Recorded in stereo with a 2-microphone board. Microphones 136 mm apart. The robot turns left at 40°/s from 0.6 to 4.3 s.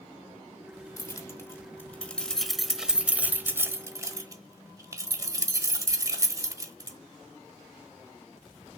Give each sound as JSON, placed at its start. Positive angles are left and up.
{"t": 1.0, "sound": "keys jangling", "side_deg": 25, "distance_m": 0.9}